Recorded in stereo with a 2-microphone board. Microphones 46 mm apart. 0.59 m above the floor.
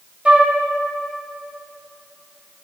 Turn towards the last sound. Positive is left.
turn(degrees=-25)  # may be behind; listen again after turning